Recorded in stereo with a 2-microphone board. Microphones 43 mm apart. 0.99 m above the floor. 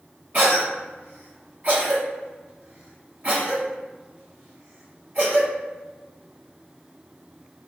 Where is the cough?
45° right (ahead or behind), 0.9 m.